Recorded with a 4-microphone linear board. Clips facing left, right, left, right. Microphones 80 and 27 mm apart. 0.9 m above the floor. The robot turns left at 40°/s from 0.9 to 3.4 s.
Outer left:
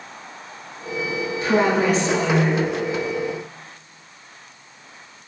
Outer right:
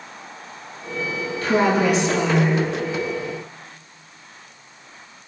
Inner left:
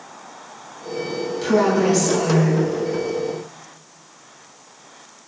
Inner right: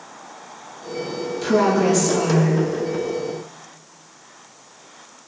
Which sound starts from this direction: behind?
A woman speaking, at 1.4 s.